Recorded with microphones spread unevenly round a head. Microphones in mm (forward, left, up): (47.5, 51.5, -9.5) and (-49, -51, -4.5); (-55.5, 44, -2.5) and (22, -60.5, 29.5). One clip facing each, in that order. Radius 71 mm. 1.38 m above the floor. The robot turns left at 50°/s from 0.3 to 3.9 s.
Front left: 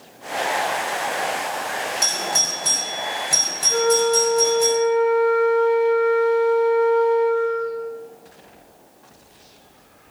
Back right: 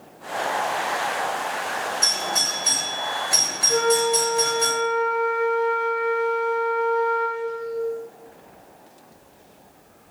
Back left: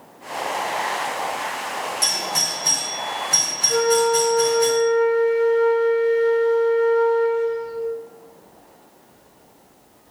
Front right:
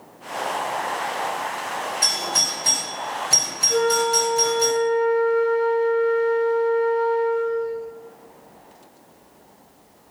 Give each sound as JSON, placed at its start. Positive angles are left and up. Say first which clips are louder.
{"t": 2.0, "sound": "a doorbell", "louder": "front left 1 dB, even", "azimuth_deg": 65, "distance_m": 1.3}
{"t": 3.7, "sound": "a flute", "louder": "front left 2 dB, back left 3 dB", "azimuth_deg": -45, "distance_m": 0.9}